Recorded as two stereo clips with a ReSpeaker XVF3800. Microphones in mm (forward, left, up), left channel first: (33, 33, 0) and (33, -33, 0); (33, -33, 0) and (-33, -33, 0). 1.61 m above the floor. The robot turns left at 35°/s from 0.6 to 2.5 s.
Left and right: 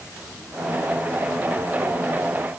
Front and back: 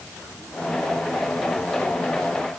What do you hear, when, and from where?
Only background noise.